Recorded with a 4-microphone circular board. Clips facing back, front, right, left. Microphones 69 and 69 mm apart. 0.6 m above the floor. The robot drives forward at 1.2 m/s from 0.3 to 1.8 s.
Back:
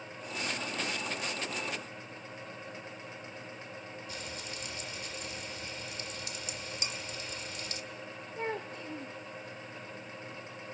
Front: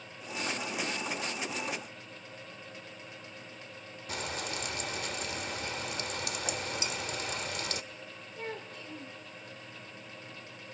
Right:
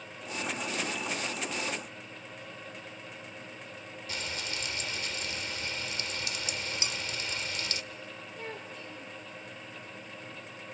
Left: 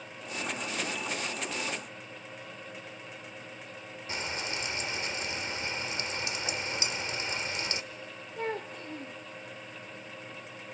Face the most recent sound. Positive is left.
turn(degrees=130)